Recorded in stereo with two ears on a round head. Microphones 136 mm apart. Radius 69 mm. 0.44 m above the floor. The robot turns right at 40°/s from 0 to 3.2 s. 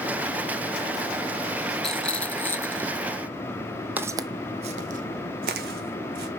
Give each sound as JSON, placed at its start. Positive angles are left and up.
{"t": 1.8, "sound": "a rattle", "side_deg": 5, "distance_m": 0.7}
{"t": 4.0, "sound": "footsteps", "side_deg": -10, "distance_m": 0.6}